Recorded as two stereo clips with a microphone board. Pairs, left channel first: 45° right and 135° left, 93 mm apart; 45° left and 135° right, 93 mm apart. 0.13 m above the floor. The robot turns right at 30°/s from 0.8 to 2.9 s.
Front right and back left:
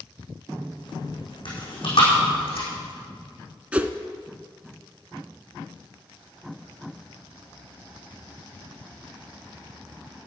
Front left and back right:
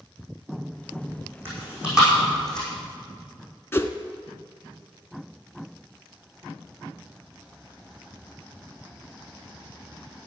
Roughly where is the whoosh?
Left.